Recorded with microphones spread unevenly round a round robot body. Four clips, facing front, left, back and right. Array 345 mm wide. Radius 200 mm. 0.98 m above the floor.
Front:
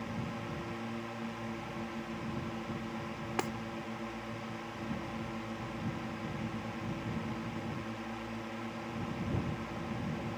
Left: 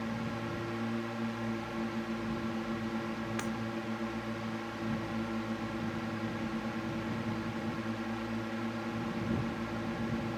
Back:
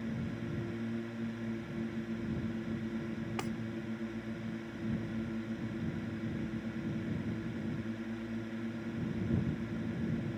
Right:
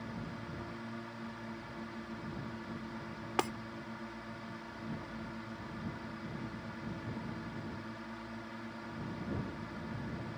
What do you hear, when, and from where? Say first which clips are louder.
0.0 s a drone: left 7 dB, back 1 dB; 130° left
3.4 s breaking glass: right 8 dB, front 6 dB; 50° right